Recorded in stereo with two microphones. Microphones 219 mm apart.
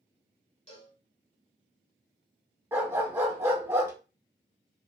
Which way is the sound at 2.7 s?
10° right (ahead or behind).